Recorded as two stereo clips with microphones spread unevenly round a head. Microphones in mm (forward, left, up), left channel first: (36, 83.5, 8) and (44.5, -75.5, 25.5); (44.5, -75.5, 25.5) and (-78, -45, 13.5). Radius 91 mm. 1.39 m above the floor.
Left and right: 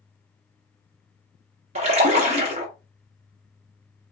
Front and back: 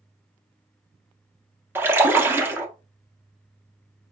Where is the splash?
120° right, 1.1 m.